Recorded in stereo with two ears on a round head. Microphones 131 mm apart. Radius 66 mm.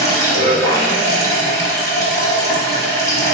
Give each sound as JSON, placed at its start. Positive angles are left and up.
{"t": 0.0, "sound": "running water", "side_deg": 20, "distance_m": 0.8}